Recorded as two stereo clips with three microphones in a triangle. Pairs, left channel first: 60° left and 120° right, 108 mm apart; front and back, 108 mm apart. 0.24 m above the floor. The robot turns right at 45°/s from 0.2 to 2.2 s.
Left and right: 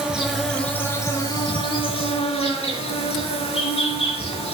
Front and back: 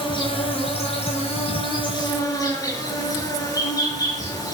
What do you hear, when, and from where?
0.0 s an insect: 35° right, 5.5 m; by 4.5 s 55° left, 5.5 m